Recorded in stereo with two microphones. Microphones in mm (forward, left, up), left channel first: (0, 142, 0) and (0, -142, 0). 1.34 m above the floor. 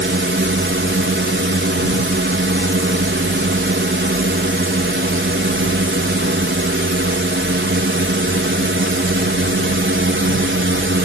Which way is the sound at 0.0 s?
40° right (ahead or behind).